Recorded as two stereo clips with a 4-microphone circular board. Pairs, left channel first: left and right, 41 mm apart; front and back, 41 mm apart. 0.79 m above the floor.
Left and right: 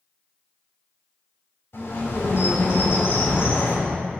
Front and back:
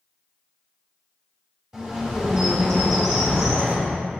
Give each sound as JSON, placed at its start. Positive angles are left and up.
{"t": 1.7, "sound": "a bird", "azimuth_deg": 115, "distance_m": 4.0}